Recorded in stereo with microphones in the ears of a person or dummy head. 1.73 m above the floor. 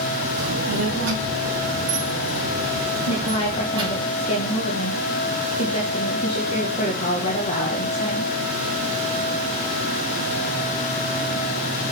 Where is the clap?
No clap in this recording.